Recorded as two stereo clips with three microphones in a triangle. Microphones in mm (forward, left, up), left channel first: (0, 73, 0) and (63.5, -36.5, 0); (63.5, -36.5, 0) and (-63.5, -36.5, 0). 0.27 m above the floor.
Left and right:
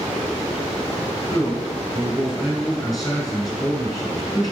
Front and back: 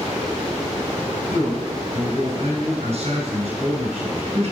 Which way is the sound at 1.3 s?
175° left.